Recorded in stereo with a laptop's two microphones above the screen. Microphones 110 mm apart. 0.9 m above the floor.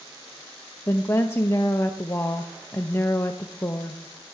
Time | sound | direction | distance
0.9 | a woman speaking | 25° left (ahead or behind) | 0.7 m